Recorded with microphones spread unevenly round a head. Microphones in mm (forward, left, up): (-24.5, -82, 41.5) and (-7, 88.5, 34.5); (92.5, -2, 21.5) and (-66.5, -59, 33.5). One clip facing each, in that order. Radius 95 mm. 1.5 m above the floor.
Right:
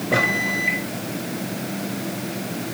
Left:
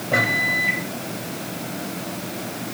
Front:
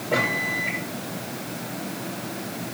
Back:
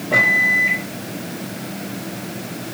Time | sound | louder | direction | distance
0.1 | a microwave | even, back 2 dB | 75° right | 2 m